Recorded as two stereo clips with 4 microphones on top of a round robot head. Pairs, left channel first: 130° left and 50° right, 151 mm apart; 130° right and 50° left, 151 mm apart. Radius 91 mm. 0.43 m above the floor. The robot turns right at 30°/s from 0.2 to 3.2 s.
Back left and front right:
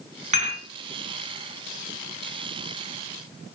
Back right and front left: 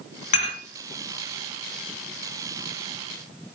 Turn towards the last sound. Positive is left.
turn(degrees=-5)